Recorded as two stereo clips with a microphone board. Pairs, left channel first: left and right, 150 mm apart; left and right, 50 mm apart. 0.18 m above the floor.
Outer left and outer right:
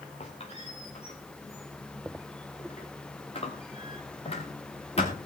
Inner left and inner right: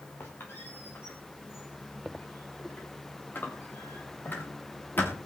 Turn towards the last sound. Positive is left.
turn(degrees=45)  # may be behind; listen again after turning